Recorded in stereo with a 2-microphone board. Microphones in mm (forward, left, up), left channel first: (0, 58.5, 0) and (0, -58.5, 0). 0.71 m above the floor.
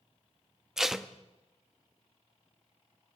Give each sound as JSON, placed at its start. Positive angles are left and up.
{"t": 0.8, "sound": "tape being pulled", "side_deg": -5, "distance_m": 0.8}